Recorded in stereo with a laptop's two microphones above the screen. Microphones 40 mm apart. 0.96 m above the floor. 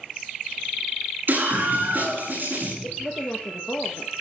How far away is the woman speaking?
About 0.9 m.